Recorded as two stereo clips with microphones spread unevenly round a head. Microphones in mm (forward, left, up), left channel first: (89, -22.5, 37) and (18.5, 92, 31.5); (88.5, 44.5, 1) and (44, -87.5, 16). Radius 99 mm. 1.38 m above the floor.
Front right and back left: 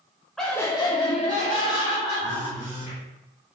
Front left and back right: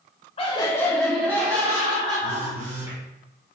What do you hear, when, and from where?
0.4 s laughter: 30° left, 0.8 m; by 3.0 s 60° right, 2 m
2.2 s a phone buzzing: 135° right, 0.9 m